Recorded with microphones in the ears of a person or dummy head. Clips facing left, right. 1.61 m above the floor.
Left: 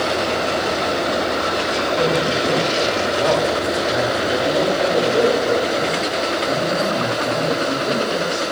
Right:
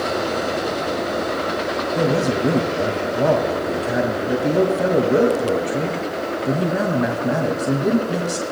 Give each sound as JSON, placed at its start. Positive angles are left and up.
{"t": 1.9, "sound": "a man speaking", "side_deg": -45, "distance_m": 2.0}